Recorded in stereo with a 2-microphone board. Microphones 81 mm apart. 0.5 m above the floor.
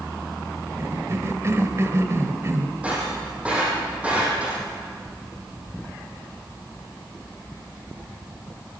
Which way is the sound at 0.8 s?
35° right (ahead or behind).